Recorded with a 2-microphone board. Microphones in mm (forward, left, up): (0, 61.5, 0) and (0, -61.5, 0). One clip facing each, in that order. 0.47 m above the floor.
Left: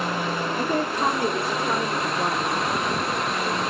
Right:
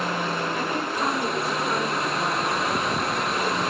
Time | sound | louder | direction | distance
0.6 | a woman speaking | left 3 dB | 25° left (ahead or behind) | 0.9 m